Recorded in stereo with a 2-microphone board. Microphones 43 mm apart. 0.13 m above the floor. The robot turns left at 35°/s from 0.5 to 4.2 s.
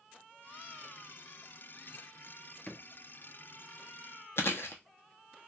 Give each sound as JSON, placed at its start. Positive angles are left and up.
{"t": 2.7, "sound": "a drawer", "side_deg": 25, "distance_m": 0.7}
{"t": 4.4, "sound": "chewing", "side_deg": 65, "distance_m": 0.7}